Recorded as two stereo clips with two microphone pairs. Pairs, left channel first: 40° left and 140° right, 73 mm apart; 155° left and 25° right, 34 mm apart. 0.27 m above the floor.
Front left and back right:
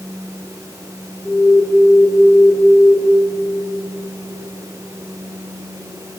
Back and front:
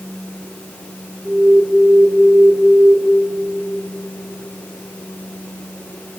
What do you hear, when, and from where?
1.2 s an alarm: 50° right, 5.5 m